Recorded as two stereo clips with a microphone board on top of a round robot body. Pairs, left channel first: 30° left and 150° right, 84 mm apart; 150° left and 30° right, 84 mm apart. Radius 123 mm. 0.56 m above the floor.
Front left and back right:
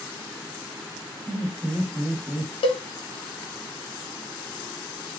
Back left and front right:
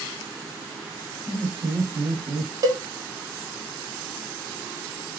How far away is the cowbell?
About 0.6 m.